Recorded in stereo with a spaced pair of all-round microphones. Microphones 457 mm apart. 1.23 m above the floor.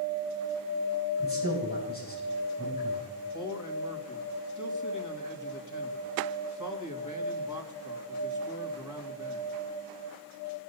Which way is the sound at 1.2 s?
20° left (ahead or behind).